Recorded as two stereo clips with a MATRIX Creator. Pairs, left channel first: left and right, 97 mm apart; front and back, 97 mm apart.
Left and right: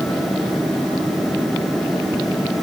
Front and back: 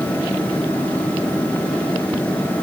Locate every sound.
Only background noise.